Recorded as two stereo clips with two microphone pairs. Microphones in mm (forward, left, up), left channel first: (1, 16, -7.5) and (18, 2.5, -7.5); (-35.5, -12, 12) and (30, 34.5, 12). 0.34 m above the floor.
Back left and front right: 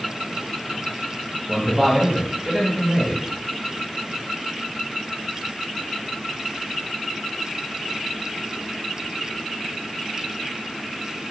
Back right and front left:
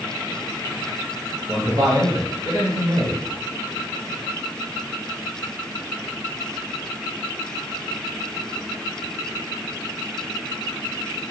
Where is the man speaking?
15° left, 1.8 m.